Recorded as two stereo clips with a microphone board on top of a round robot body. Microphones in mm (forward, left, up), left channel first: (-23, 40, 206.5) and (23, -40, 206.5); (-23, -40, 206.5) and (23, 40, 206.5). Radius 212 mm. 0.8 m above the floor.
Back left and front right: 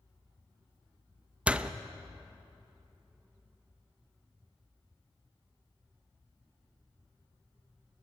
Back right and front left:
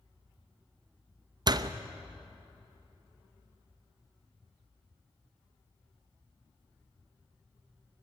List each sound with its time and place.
1.5 s a door slam: 20° left, 0.9 m